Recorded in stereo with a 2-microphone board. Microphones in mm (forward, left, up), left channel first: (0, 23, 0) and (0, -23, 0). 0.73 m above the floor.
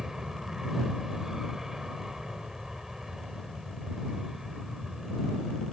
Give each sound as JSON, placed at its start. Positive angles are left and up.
{"t": 0.0, "sound": "an aircraft", "side_deg": -10}